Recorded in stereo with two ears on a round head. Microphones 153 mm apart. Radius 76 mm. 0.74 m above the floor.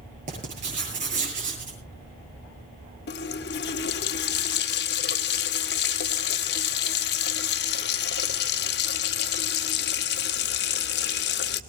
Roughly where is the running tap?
Left.